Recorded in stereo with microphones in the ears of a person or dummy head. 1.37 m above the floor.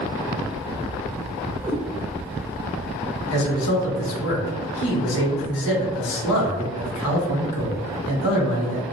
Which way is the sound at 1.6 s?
15° right (ahead or behind).